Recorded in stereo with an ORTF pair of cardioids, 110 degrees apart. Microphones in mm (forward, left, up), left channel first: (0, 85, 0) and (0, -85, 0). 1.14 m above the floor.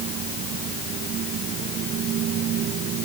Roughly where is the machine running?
Ahead right.